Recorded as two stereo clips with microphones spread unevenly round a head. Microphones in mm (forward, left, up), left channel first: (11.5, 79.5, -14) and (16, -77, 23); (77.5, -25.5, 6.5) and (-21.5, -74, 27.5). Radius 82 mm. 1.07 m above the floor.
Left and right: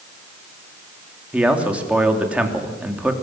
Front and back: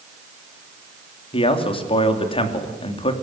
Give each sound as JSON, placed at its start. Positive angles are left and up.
{"t": 1.3, "sound": "a man speaking", "azimuth_deg": -5, "distance_m": 3.0}